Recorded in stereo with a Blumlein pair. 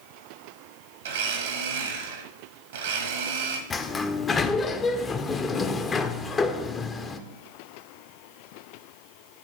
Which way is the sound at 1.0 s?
60° right.